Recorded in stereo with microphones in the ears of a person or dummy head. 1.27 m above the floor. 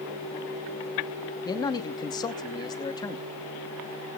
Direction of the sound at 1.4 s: 15° left (ahead or behind).